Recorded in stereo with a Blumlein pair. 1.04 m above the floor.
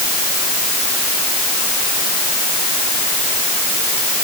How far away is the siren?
No siren in this recording.